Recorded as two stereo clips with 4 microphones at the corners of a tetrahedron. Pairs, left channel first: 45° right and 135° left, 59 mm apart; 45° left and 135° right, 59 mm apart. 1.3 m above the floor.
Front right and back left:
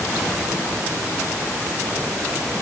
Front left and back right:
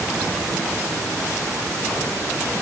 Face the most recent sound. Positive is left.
No sound to turn to.